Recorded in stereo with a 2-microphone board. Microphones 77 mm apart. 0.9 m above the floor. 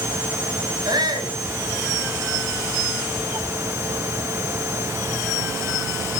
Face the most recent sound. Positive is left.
turn(degrees=-70)  # may be behind; listen again after turning